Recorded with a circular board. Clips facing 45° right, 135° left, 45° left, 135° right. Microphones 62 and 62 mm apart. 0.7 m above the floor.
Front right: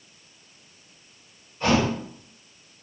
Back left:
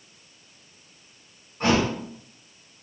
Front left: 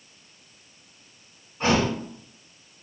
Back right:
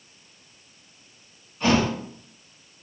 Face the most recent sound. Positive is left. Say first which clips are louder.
# even, back right 1 dB
turn(degrees=95)